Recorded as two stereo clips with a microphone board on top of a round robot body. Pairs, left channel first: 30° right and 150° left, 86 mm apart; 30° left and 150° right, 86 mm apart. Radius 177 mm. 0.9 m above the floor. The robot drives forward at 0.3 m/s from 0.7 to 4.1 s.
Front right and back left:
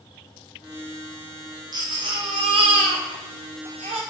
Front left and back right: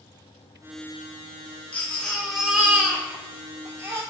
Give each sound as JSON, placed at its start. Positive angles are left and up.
{"t": 1.7, "sound": "a baby crying", "azimuth_deg": 105, "distance_m": 0.6}